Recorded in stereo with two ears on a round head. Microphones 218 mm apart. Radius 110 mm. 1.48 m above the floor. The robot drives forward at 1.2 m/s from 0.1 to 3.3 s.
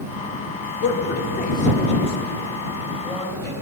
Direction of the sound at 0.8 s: 55° left (ahead or behind).